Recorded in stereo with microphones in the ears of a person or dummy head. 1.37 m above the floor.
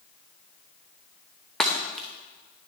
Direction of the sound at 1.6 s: 5° left (ahead or behind).